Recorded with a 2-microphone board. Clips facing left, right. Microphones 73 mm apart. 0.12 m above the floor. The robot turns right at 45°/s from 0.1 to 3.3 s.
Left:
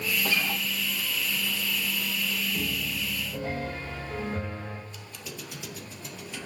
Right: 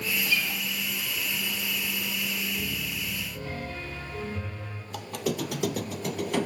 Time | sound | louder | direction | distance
0.2 | a guitar | left 2 dB | 50° left (ahead or behind) | 1.7 m
2.5 | a piano | left 2 dB | 80° left | 7 m
4.9 | a squeak | right 12 dB | 70° right (ahead or behind) | 0.6 m